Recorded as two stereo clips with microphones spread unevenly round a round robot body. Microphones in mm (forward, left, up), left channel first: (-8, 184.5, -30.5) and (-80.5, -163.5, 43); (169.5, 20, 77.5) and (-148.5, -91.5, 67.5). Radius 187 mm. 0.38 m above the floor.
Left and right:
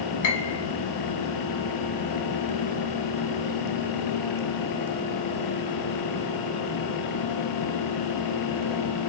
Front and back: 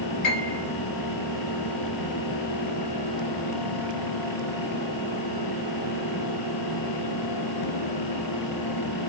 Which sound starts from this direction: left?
A piano, at 0.2 s.